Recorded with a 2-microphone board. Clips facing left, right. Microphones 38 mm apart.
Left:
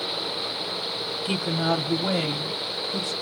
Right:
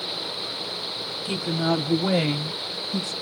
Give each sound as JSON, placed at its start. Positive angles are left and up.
{"t": 1.2, "sound": "a woman speaking", "side_deg": 30, "distance_m": 1.1}